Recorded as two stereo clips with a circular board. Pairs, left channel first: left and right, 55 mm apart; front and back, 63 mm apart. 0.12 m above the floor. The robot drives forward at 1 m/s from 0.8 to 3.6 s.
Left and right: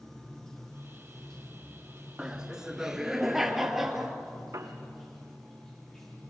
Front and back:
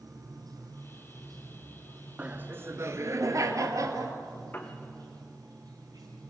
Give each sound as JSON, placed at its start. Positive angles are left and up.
{"t": 0.0, "sound": "running water", "azimuth_deg": 170, "distance_m": 4.0}
{"t": 2.2, "sound": "laughter", "azimuth_deg": -150, "distance_m": 1.1}
{"t": 4.5, "sound": "a piano", "azimuth_deg": -60, "distance_m": 2.5}